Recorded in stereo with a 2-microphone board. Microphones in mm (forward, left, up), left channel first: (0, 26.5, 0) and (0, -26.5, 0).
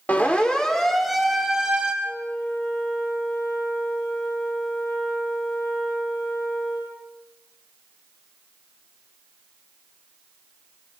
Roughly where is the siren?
Left.